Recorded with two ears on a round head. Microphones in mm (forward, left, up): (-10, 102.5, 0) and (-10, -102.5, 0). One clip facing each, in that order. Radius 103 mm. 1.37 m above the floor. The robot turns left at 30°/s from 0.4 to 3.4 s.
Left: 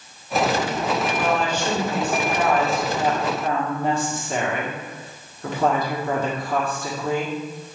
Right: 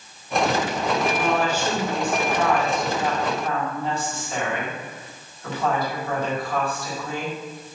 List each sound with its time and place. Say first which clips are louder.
1.1 s a woman speaking: even; 160° right, 1.4 m; by 7.3 s 135° left, 1.4 m